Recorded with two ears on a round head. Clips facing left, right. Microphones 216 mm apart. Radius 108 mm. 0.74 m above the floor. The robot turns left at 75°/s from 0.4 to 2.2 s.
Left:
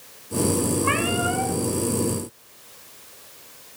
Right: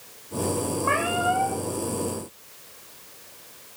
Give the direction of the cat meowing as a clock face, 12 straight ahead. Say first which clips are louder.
Left 2 dB; 10 o'clock.